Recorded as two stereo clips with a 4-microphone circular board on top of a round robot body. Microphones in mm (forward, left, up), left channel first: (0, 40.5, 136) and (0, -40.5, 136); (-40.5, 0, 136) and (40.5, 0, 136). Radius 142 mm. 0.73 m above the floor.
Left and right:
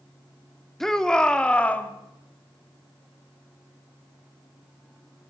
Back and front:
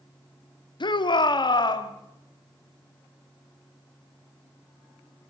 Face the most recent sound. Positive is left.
turn(degrees=160)